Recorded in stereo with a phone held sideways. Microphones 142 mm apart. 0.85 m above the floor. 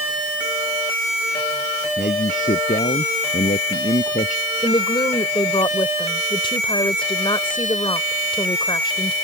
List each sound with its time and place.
2.0 s a man speaking: 70° left (ahead or behind); by 4.4 s 60° left (ahead or behind)
4.6 s a woman speaking: 35° left (ahead or behind)